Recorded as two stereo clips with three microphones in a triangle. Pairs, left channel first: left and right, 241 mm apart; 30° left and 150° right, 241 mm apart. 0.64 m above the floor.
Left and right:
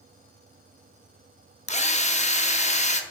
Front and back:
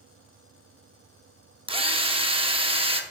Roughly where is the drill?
Behind left.